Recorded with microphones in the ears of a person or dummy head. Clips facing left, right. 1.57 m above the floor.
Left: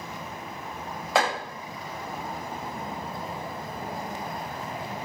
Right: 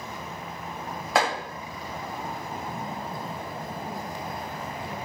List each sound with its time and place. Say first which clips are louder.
1.1 s chopping: even; centre (ahead or behind), 1.8 m